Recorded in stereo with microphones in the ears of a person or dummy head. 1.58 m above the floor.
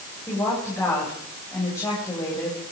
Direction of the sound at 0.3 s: 15° left (ahead or behind).